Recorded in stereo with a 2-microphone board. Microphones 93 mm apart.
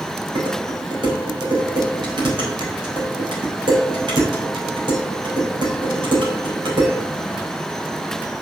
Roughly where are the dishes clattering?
Right.